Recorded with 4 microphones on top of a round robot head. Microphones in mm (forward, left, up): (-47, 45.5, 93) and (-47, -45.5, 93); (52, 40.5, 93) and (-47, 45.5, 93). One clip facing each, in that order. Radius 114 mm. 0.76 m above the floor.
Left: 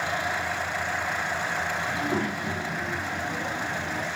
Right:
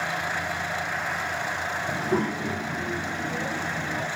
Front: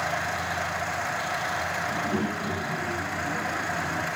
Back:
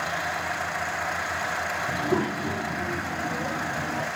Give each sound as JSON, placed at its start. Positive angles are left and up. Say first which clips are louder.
{"t": 1.9, "sound": "a child speaking", "louder": "right 5 dB, back 4 dB", "azimuth_deg": -155, "distance_m": 4.0}